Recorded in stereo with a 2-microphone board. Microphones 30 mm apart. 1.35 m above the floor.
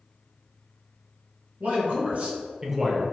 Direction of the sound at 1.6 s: 65° right (ahead or behind).